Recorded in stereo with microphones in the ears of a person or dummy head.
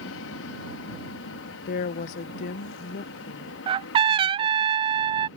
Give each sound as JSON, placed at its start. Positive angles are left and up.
{"t": 0.0, "sound": "an aircraft", "side_deg": 65}
{"t": 1.7, "sound": "a woman speaking", "side_deg": 40}
{"t": 3.7, "sound": "a trumpet", "side_deg": -30}